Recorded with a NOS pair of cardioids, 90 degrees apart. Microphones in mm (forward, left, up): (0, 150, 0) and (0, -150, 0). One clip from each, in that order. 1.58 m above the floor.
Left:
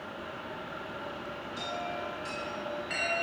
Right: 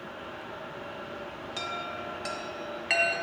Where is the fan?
10° left, 2.0 m.